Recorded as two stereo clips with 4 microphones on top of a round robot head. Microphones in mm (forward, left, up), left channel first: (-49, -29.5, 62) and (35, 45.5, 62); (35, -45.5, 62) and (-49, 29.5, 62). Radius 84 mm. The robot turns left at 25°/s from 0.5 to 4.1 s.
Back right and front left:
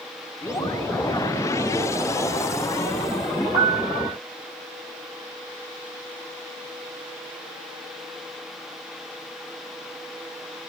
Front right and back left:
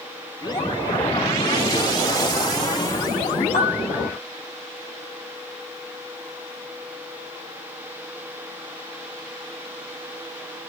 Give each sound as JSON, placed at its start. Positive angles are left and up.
{"t": 3.5, "sound": "a piano", "azimuth_deg": -15, "distance_m": 9.5}